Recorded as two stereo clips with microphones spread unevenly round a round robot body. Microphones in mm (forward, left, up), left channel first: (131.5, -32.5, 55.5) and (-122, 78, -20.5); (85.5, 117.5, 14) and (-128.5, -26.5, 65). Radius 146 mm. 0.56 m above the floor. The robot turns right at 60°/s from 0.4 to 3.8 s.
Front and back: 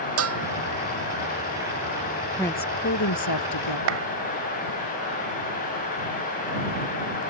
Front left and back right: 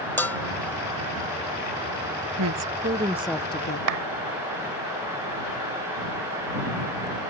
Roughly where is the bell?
Behind left.